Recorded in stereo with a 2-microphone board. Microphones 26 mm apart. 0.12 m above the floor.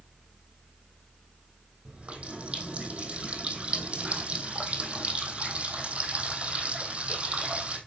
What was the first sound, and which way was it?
A running tap, 55° right (ahead or behind).